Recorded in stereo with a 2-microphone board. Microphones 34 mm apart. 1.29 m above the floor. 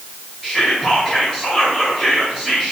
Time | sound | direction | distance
0.4 | whispering | 5° right (ahead or behind) | 0.9 m